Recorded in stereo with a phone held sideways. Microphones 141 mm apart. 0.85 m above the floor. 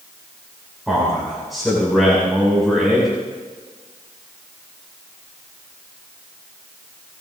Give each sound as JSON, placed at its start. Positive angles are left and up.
{"t": 0.9, "sound": "a man speaking", "side_deg": 0, "distance_m": 6.5}